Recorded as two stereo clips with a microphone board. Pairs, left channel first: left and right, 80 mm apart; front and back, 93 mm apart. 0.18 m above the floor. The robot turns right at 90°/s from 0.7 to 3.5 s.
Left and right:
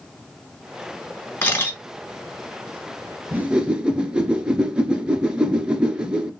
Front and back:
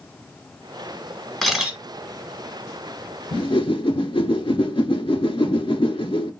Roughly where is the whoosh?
Ahead right.